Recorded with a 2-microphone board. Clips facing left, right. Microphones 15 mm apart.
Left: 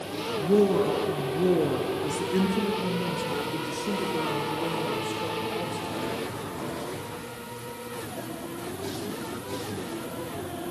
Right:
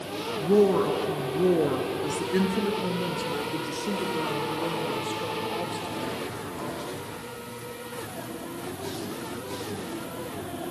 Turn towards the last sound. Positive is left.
turn(degrees=-25)  # may be behind; listen again after turning